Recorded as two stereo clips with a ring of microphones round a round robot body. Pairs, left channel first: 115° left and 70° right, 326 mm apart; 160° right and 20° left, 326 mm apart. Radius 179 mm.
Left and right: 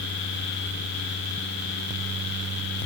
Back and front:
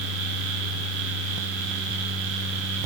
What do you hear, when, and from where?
Only background noise.